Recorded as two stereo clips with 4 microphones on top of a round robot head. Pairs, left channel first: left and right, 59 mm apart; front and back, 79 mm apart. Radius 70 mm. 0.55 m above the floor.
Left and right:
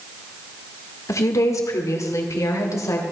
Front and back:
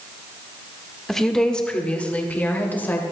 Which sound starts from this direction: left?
A woman speaking, at 1.1 s.